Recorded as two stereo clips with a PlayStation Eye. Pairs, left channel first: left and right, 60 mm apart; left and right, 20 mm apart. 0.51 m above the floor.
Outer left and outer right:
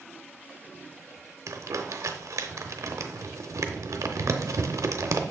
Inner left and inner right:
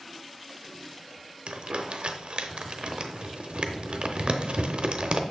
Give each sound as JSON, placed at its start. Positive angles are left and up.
{"t": 1.5, "sound": "crumpling", "side_deg": -60, "distance_m": 0.6}